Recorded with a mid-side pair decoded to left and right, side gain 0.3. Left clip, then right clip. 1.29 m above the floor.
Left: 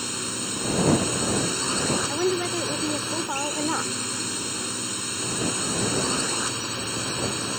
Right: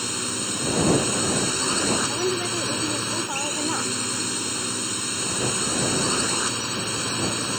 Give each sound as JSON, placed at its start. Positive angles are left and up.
{"t": 0.0, "sound": "a drone", "azimuth_deg": -20}
{"t": 2.1, "sound": "a woman speaking", "azimuth_deg": 25}